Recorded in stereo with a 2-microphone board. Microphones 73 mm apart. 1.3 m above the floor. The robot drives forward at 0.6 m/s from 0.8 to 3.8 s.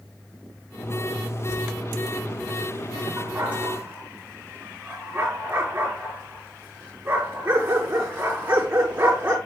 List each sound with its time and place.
3.2 s a dog barking: 25° right (ahead or behind), 3.5 m; by 9.4 s 20° right (ahead or behind), 4 m